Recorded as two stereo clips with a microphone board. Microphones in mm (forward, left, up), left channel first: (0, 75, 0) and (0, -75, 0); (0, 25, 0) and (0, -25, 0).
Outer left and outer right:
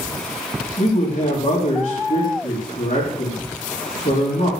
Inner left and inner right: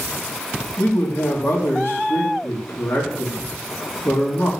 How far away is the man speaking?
About 3.5 m.